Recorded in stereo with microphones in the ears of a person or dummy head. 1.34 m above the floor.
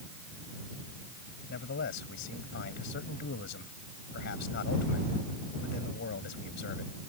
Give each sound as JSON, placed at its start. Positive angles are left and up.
{"t": 1.5, "sound": "a man speaking", "side_deg": 65}